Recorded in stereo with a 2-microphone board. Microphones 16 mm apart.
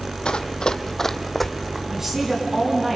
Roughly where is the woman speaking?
Right.